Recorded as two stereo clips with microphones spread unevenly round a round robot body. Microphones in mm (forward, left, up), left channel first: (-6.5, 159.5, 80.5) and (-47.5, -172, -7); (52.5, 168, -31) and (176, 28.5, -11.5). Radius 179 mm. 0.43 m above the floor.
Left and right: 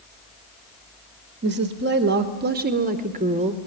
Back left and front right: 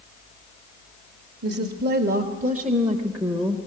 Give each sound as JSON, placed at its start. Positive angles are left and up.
{"t": 1.4, "sound": "a woman speaking", "azimuth_deg": -65, "distance_m": 1.2}